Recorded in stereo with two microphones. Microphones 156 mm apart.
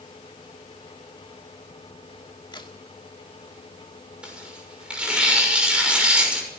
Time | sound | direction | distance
2.5 | a crack | 30° left (ahead or behind) | 2 m
4.2 | tearing paper | 5° right (ahead or behind) | 6.5 m